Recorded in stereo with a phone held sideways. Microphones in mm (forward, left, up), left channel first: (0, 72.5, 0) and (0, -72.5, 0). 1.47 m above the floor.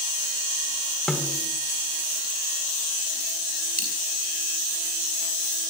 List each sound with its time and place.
1.1 s a snare drum: 5° left (ahead or behind), 2.5 m
3.8 s a dropped coin: 80° left, 6 m